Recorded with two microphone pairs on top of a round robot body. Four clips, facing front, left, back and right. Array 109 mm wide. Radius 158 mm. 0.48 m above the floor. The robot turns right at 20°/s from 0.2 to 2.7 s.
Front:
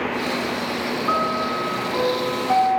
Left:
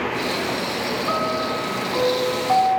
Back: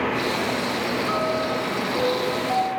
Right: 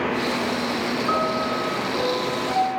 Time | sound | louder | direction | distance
1.1 | a piano | even, front 4 dB | 35° left | 5.5 m